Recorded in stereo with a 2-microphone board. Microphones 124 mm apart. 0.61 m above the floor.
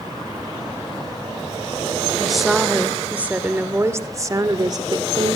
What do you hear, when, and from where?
2.2 s a woman speaking: centre (ahead or behind), 2.5 m; by 5.4 s 45° right (ahead or behind), 2 m